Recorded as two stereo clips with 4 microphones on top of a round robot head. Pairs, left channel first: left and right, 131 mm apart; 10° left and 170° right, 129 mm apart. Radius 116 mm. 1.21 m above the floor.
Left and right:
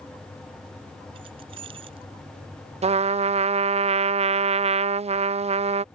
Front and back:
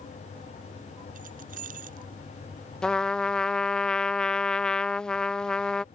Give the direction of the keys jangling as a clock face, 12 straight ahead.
5 o'clock.